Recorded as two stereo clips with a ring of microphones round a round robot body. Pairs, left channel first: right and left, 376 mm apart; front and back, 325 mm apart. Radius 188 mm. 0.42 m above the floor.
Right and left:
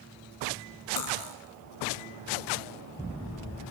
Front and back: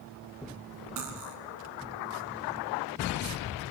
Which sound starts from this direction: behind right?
Cutlery clinking, at 1.0 s.